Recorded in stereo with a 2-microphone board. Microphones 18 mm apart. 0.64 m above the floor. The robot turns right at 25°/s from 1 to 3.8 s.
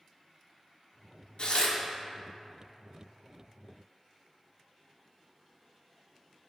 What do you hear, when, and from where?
1.4 s tearing paper: 60° left (ahead or behind), 0.9 m; by 1.8 s 55° left (ahead or behind), 0.9 m